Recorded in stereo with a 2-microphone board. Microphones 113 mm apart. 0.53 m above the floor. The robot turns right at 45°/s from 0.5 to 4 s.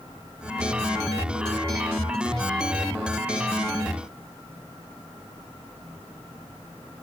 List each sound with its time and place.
Only background noise.